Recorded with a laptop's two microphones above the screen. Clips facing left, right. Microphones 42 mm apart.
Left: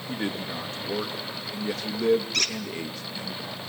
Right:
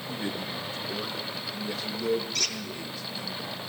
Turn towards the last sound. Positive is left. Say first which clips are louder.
# left 4 dB
turn(degrees=65)  # may be behind; listen again after turning